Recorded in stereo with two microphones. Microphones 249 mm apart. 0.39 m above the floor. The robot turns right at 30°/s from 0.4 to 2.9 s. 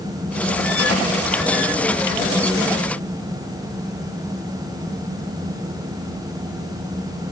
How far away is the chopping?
I don't hear chopping.